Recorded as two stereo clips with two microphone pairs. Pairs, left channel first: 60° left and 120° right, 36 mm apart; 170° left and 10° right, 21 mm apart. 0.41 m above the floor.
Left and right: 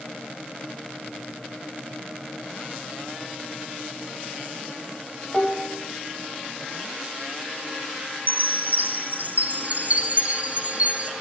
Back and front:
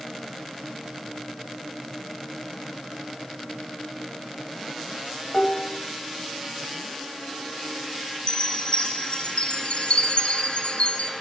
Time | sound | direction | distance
5.3 | dishes clattering | 120° left | 1.1 m
8.3 | a chime | 165° right | 1.2 m